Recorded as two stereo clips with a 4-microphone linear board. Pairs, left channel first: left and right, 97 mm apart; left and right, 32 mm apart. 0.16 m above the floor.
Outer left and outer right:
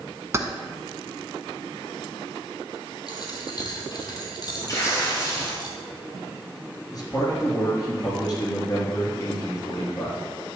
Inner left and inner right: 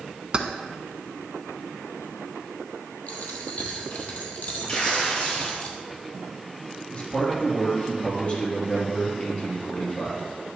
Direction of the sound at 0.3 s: 30° right (ahead or behind).